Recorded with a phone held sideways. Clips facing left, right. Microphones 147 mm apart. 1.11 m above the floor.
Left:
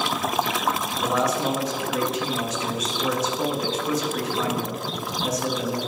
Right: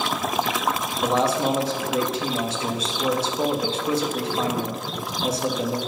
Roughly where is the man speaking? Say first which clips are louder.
Right 2 dB; right.